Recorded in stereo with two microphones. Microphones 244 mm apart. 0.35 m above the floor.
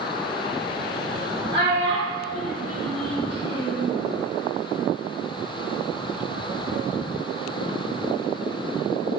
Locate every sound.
1.5 s a child speaking: 45° right (ahead or behind), 0.9 m; by 3.9 s 35° right (ahead or behind), 1.1 m